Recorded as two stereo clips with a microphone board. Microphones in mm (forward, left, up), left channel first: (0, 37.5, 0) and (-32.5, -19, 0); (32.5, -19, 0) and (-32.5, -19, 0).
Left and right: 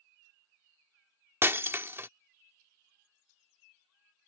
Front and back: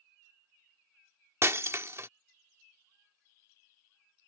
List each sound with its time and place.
1.4 s breaking glass: 155° right